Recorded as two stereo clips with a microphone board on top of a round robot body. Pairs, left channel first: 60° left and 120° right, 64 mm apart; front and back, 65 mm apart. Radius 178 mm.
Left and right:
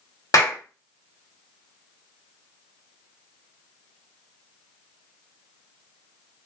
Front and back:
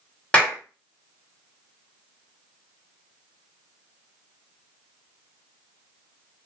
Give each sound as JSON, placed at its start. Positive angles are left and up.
{"t": 0.3, "sound": "a clap", "azimuth_deg": 70, "distance_m": 1.5}